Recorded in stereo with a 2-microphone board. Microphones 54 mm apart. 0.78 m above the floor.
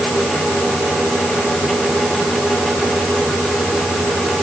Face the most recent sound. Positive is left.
No sound to turn to.